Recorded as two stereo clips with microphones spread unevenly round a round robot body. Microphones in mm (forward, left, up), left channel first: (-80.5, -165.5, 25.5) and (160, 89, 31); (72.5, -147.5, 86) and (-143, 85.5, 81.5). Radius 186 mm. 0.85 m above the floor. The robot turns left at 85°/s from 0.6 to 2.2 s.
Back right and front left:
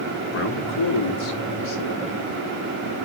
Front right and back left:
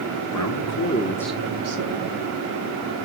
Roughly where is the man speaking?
Right.